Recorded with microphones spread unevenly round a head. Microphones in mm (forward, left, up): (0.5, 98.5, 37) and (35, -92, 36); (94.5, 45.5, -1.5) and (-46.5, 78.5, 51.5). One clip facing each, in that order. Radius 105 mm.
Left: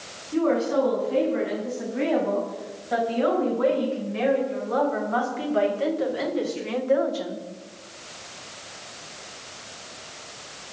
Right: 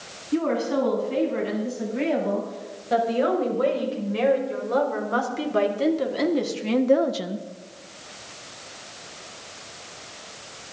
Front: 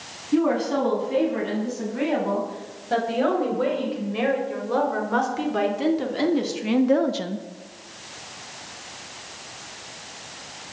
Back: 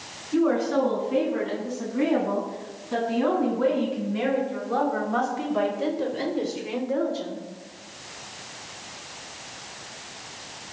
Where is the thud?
I don't hear a thud.